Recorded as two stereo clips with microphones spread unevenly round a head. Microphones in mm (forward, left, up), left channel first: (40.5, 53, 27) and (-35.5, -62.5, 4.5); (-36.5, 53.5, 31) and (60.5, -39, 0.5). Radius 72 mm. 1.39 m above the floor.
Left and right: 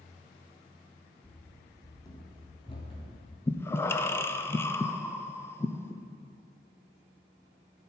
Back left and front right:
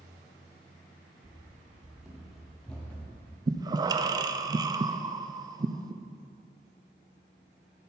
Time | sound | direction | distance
1.2 | running footsteps | 30° left | 1.4 m
3.5 | breathing | 20° right | 0.5 m